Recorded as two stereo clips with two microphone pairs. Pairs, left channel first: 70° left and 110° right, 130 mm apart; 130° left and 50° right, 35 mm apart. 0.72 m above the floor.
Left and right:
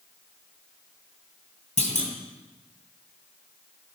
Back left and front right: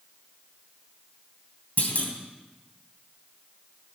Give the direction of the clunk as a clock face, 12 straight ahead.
9 o'clock.